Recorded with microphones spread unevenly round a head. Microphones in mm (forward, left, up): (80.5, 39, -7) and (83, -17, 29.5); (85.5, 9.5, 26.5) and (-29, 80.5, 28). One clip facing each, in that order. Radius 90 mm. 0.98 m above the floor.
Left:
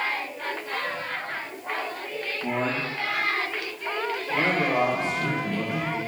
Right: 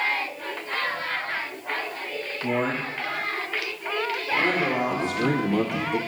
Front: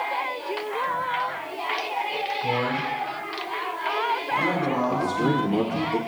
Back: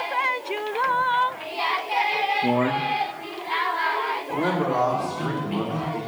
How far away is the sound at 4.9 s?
About 1.7 m.